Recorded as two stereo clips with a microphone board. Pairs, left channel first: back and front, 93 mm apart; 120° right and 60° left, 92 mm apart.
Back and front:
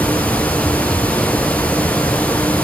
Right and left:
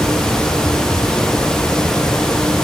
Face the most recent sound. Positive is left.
No sound to turn to.